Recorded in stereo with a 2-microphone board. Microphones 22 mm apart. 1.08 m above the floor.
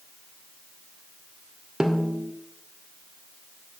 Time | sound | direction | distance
1.8 | a snare drum | 45° right (ahead or behind) | 1.9 m